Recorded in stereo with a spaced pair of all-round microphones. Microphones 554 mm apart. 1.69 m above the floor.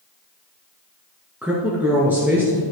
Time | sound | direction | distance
1.4 | a woman speaking | 5° right (ahead or behind) | 2.5 m